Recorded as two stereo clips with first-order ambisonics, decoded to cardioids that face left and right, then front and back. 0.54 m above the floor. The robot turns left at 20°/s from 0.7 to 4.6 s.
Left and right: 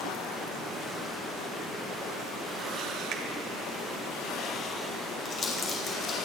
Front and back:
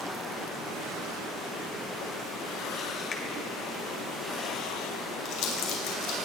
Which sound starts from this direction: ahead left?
Crumpling, at 5.2 s.